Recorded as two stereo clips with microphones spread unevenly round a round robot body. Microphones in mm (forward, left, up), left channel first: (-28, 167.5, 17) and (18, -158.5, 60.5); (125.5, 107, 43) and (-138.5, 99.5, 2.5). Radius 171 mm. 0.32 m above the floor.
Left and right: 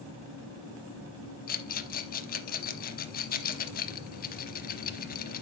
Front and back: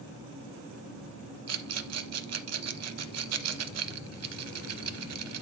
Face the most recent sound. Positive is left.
turn(degrees=160)